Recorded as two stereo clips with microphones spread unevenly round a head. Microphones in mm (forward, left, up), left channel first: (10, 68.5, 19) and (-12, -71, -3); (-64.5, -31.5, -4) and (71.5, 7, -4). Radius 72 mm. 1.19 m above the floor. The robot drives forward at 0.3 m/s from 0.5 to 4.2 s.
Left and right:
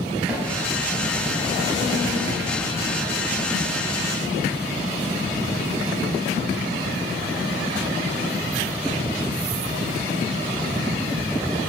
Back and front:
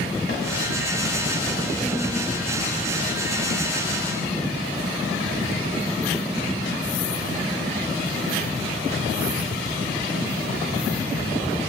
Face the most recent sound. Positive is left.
turn(degrees=180)